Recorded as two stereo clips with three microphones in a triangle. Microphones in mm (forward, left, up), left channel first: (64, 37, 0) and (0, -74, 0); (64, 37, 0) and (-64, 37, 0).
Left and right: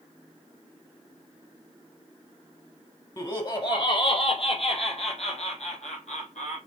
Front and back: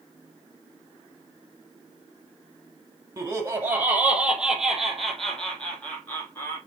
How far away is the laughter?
About 3 m.